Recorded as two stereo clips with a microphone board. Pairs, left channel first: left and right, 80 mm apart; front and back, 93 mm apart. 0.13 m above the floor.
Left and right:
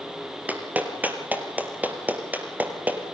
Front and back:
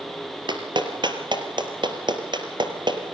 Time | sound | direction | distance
0.5 | a clap | 155° right | 2.5 m